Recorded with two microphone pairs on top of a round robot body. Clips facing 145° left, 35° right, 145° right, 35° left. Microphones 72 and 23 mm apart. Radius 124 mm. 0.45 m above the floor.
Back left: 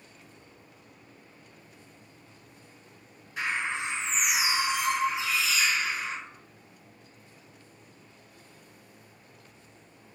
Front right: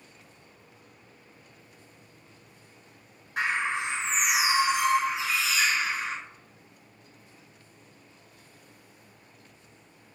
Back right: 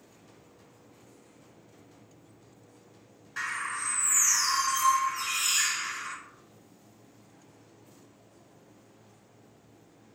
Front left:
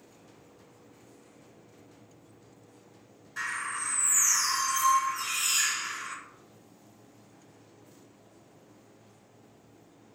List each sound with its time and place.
3.4 s a bird: 70° right, 2 m